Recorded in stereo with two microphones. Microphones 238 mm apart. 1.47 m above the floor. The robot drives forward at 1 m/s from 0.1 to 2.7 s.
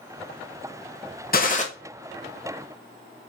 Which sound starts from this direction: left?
A gunshot, at 1.3 s.